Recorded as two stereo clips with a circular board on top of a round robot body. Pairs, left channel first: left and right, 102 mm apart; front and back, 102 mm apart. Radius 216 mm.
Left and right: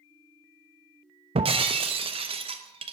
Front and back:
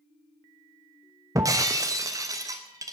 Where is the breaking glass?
120° right, 1.0 m.